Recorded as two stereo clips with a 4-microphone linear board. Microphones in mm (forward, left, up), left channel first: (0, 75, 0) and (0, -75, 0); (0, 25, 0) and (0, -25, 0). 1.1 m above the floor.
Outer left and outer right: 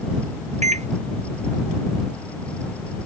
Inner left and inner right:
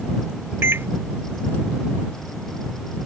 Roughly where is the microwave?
Right.